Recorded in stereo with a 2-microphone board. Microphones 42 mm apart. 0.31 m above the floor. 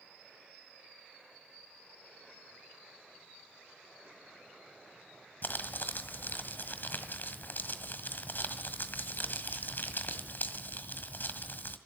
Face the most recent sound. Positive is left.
turn(degrees=55)  # may be behind; listen again after turning